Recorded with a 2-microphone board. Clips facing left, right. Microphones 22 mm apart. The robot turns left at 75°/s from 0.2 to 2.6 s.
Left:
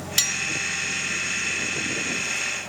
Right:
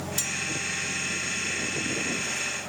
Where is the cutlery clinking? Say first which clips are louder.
Left 8 dB; 80° left; by 0.4 s 70° left (ahead or behind).